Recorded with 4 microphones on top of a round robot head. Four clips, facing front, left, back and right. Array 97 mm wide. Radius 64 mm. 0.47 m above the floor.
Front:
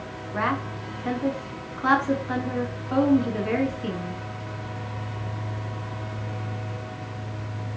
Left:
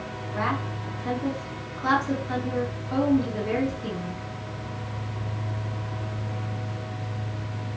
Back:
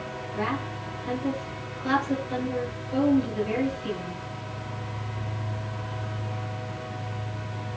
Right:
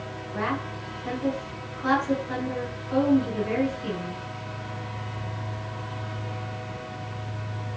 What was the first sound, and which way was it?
A woman speaking, 15° left.